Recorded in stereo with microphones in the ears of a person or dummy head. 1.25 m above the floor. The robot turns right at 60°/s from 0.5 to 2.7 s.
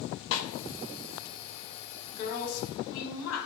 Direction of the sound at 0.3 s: 55° left (ahead or behind).